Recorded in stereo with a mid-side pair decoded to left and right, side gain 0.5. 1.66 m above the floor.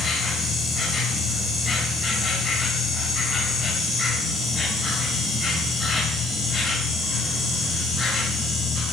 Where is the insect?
40° left, 5.5 m.